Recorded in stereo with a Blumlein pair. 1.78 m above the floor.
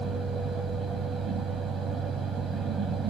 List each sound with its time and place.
0.0 s a fan: 20° right, 1.2 m